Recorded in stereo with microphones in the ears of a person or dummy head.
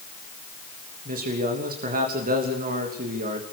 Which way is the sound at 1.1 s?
45° right (ahead or behind).